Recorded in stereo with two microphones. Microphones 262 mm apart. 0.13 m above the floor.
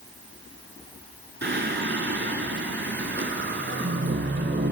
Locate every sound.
1.4 s singing: 45° right (ahead or behind), 0.8 m